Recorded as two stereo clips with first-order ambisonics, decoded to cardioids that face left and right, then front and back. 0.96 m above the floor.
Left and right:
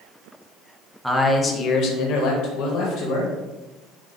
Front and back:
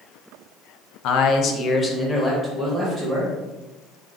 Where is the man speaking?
Straight ahead, 0.6 m; by 3.3 s 110° left, 1.4 m.